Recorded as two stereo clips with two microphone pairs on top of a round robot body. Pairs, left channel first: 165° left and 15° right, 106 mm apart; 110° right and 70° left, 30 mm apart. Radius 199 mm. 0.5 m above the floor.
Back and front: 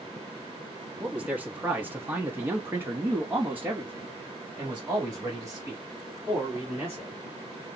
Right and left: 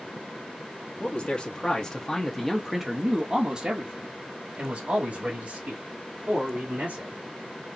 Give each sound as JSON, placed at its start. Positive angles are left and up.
{"t": 1.0, "sound": "a man speaking", "azimuth_deg": -80, "distance_m": 1.3}